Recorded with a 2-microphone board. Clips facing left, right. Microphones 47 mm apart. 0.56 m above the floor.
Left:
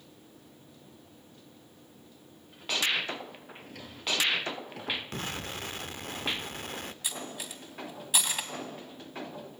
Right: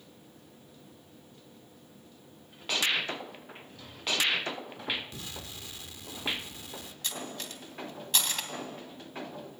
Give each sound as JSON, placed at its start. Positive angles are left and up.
{"t": 3.6, "sound": "a drawer", "side_deg": 75, "distance_m": 7.5}
{"t": 5.1, "sound": "an explosion", "side_deg": 55, "distance_m": 0.6}
{"t": 7.0, "sound": "cutlery clinking", "side_deg": 10, "distance_m": 2.5}